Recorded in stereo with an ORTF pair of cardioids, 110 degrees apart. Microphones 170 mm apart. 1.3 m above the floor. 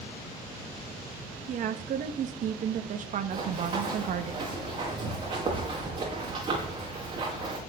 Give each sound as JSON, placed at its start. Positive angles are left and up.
{"t": 1.5, "sound": "a woman speaking", "azimuth_deg": -55, "distance_m": 1.4}
{"t": 3.3, "sound": "running footsteps", "azimuth_deg": -30, "distance_m": 6.5}